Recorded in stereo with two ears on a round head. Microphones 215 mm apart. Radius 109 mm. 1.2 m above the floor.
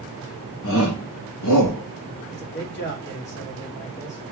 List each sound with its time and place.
0.6 s a shout: 50° left (ahead or behind), 1.3 m; by 2.2 s 90° left, 1.7 m
2.3 s a man speaking: 50° left (ahead or behind), 2.5 m